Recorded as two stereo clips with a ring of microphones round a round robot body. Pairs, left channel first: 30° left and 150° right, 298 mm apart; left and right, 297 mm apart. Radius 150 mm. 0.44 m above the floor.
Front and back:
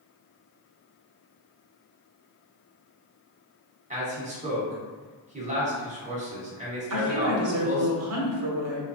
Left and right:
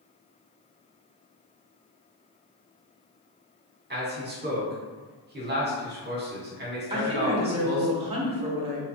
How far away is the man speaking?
About 1.1 m.